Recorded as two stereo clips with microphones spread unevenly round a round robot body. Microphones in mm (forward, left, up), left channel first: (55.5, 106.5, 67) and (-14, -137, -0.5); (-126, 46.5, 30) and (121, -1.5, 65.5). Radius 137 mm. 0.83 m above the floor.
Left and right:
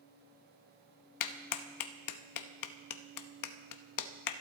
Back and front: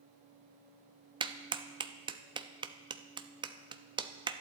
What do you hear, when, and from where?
1.2 s a clap: 65° left, 0.9 m